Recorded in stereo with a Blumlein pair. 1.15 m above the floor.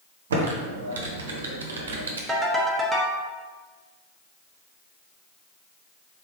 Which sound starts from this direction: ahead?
A ringtone, at 2.3 s.